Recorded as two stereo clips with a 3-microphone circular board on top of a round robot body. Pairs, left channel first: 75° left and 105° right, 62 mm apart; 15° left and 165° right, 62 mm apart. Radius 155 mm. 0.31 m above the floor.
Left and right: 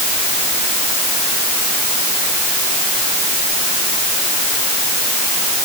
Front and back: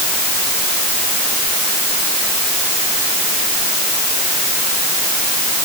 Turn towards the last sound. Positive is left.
No sound to turn to.